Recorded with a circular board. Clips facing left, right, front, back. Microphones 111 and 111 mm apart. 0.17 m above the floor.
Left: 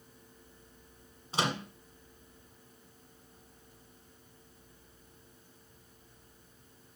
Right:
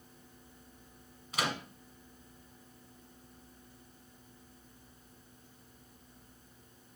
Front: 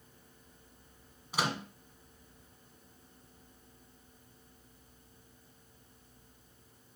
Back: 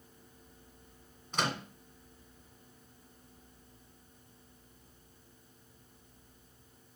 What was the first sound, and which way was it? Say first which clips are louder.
A microwave: left 3 dB, even; 75° left.